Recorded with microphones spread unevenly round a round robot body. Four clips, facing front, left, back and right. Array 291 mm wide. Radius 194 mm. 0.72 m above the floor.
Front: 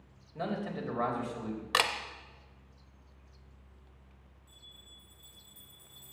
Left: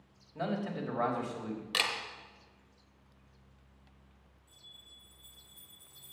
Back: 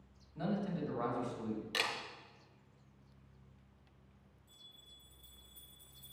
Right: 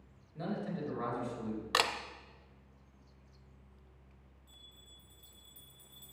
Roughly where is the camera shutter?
Ahead right.